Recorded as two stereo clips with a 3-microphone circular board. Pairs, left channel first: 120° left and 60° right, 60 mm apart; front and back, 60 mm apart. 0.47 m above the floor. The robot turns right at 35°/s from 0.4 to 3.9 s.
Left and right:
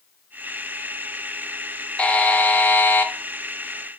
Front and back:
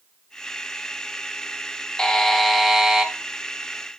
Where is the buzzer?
65° left, 0.6 m; by 3.1 s 105° left, 0.6 m.